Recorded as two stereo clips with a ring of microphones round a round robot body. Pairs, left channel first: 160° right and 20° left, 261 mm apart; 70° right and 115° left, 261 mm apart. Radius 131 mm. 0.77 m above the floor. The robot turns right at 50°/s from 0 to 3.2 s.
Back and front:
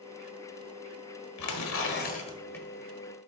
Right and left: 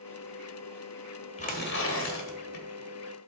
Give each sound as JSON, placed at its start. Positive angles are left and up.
{"t": 1.4, "sound": "tearing paper", "azimuth_deg": -135, "distance_m": 1.5}